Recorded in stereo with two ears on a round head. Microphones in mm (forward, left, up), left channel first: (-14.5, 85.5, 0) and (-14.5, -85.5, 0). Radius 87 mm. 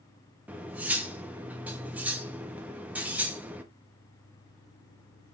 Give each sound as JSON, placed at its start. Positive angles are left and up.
{"t": 0.5, "sound": "cutlery clinking", "side_deg": -5, "distance_m": 0.6}